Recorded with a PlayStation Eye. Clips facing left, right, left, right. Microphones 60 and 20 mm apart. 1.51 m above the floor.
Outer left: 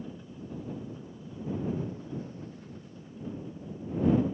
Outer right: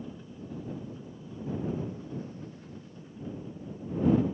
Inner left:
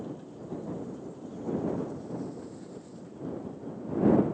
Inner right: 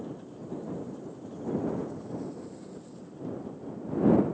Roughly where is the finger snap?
I don't hear a finger snap.